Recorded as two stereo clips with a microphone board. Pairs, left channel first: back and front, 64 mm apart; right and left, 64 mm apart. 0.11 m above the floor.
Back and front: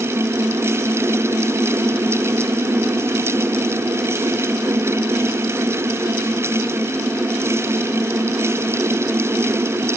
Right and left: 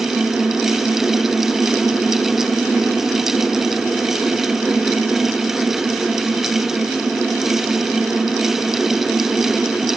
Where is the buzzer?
I don't hear a buzzer.